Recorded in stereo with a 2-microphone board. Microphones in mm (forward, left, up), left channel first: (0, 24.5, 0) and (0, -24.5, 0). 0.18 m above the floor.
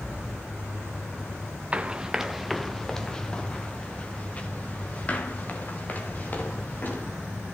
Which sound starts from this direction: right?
Running footsteps, at 1.7 s.